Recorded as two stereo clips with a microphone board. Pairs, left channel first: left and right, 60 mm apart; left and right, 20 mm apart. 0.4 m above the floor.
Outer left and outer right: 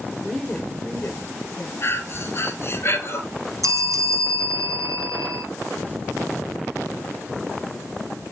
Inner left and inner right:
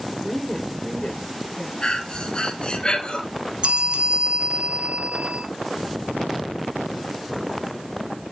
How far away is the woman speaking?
About 1.2 m.